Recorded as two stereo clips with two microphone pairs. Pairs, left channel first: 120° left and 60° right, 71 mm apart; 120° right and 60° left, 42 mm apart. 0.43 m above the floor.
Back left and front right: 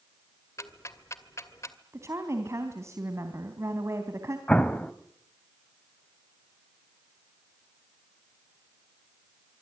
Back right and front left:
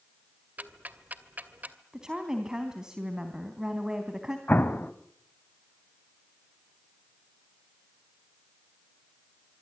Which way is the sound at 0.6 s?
90° left.